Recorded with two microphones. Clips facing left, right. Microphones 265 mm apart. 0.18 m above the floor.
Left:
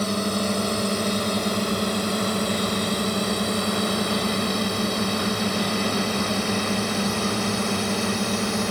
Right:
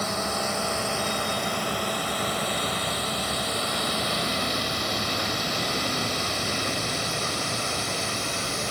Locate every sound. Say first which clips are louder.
0.0 s a drone: left 6 dB; 40° left (ahead or behind); by 8.7 s 75° left (ahead or behind)